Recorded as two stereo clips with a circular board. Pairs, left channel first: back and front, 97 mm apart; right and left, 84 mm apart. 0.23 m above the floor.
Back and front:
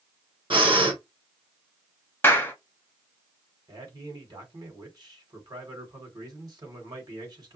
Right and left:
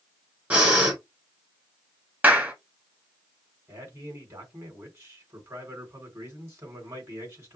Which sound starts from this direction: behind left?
A clap, at 2.2 s.